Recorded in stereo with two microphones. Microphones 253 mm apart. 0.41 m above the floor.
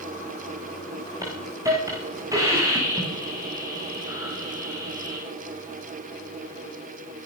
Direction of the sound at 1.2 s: 10° right (ahead or behind).